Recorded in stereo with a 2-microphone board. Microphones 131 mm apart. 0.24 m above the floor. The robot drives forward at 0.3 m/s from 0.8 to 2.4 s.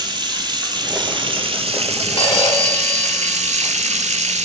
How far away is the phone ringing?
About 1.5 m.